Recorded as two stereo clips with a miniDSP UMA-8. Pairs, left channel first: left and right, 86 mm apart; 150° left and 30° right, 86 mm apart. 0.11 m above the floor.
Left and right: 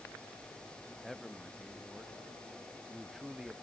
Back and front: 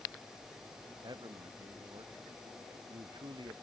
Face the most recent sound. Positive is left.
turn(degrees=-5)